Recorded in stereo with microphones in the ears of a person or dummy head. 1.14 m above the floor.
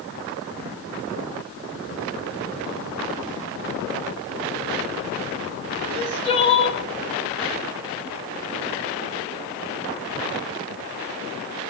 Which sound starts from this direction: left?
Crying, at 5.8 s.